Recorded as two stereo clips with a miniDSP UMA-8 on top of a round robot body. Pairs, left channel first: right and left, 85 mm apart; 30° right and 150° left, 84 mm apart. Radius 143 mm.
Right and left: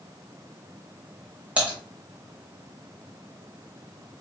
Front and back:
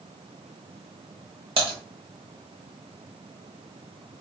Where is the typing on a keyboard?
165° left, 0.6 m.